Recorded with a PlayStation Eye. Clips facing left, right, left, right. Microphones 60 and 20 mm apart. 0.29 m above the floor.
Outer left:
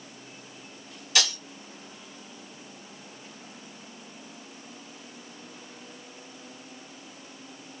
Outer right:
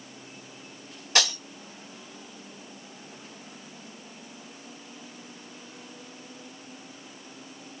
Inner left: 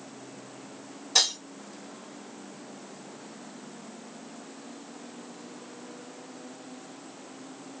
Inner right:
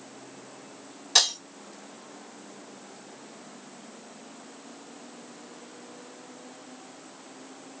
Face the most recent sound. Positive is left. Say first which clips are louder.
# outer right 2 dB, inner right 2 dB
turn(degrees=-40)  # may be behind; listen again after turning